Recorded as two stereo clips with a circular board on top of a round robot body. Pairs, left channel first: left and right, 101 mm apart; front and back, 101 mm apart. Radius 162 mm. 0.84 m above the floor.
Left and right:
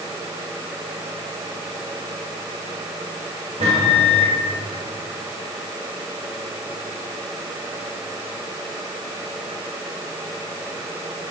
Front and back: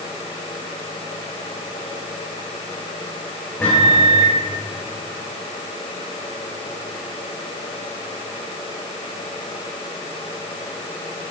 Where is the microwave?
75° right, 2.5 m.